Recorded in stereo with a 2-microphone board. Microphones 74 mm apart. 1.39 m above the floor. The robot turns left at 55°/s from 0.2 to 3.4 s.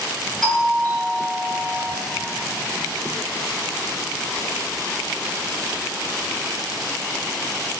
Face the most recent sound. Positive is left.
turn(degrees=15)